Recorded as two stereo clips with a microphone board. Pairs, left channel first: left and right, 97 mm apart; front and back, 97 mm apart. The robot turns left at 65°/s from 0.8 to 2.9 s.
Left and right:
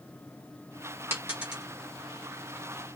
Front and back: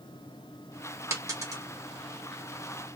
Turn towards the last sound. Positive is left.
turn(degrees=100)